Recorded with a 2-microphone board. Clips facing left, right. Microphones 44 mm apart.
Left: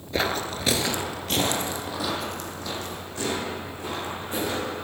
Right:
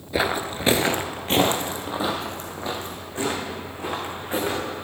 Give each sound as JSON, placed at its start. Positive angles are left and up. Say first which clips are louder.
{"t": 0.1, "sound": "footsteps", "louder": "right 2 dB", "side_deg": -5, "distance_m": 0.5}